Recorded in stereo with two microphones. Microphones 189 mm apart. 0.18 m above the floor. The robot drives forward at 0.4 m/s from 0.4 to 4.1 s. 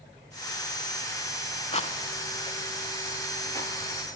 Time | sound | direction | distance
1.7 | a rattle | 35° left (ahead or behind) | 0.5 m